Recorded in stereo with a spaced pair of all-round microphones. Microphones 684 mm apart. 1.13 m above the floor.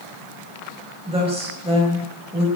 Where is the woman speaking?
10° right (ahead or behind), 5 m.